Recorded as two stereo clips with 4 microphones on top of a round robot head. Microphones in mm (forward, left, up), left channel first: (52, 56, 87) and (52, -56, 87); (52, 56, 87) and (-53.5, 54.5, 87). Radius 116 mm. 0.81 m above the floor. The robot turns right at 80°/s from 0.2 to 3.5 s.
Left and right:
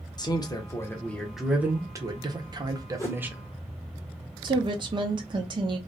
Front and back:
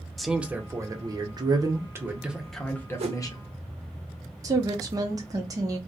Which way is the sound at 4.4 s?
130° right.